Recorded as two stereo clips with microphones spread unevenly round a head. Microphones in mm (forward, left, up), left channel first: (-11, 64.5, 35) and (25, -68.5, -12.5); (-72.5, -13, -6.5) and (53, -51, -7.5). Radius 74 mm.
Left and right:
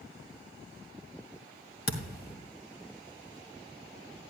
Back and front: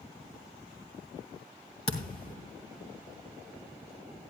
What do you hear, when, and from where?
1.9 s a thud: 105° left, 2 m